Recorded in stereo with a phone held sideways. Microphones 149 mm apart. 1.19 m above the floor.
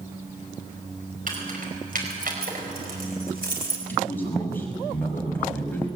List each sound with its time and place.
1.3 s keys jangling: 65° right (ahead or behind), 5 m; by 3.8 s 90° right, 4.5 m
3.9 s a man speaking: 10° left (ahead or behind), 6 m